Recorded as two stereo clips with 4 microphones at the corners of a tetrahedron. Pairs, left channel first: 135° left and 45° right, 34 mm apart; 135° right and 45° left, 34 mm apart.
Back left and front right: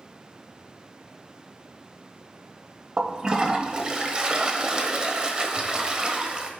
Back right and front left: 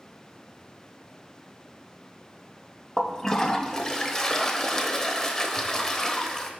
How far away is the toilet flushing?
About 0.9 m.